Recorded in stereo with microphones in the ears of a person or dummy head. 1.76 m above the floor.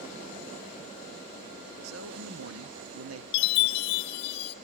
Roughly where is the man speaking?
Right.